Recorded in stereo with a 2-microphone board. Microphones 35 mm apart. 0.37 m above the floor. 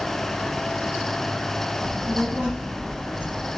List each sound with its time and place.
1.8 s a child speaking: 35° right (ahead or behind), 2 m; by 3.5 s 65° right (ahead or behind), 3 m